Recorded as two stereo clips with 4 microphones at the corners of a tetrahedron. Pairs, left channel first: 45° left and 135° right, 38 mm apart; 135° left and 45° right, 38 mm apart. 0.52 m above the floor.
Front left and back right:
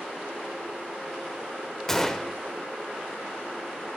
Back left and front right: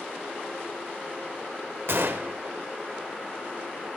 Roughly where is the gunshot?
Ahead right.